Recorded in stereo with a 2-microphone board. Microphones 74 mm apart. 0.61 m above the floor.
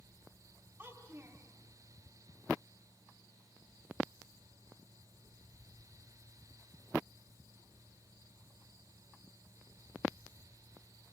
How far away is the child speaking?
About 3.5 m.